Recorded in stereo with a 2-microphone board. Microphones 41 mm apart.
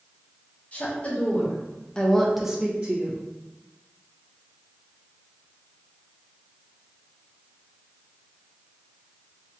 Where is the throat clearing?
No throat clearing in this recording.